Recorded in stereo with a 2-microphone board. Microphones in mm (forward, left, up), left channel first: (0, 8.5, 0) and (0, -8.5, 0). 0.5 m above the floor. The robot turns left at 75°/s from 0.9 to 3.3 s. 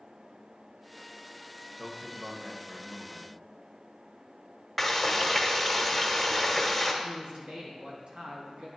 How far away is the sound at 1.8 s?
About 1.6 m.